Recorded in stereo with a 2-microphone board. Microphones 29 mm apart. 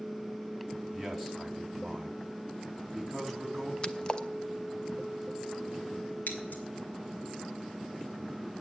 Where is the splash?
25° left (ahead or behind), 0.8 m.